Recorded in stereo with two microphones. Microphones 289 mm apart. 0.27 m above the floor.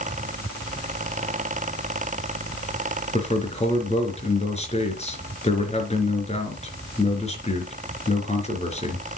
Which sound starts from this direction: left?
A man speaking, at 3.1 s.